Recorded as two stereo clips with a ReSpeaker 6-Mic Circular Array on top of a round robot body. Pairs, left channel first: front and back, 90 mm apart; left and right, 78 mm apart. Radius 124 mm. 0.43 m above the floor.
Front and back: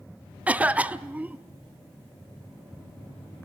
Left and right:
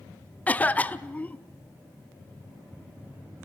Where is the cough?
130° left, 0.8 m.